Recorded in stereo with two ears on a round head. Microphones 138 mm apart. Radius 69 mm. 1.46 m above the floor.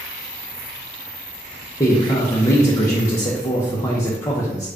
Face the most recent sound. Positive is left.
turn(degrees=20)  # may be behind; listen again after turning